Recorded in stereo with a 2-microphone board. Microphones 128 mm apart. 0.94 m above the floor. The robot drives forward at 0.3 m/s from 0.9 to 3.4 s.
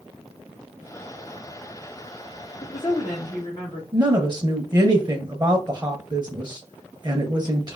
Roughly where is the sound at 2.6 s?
Left.